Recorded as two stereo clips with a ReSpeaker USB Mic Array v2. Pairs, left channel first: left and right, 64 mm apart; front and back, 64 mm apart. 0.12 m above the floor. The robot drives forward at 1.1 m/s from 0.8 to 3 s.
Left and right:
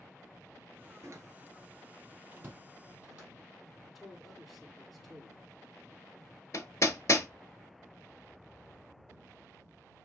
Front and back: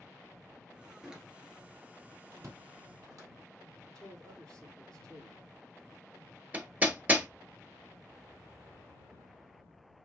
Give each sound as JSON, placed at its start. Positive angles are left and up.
{"t": 1.0, "sound": "a door slam", "azimuth_deg": -100, "distance_m": 1.4}
{"t": 3.9, "sound": "a man speaking", "azimuth_deg": -175, "distance_m": 3.5}
{"t": 6.5, "sound": "hammering", "azimuth_deg": 120, "distance_m": 0.7}